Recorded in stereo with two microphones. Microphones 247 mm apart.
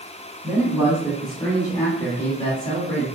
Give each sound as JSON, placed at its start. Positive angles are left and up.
{"t": 0.4, "sound": "a man speaking", "side_deg": -15, "distance_m": 1.7}